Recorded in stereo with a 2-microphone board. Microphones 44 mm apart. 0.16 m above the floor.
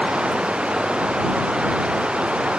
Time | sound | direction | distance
0.0 | running water | 25° right (ahead or behind) | ?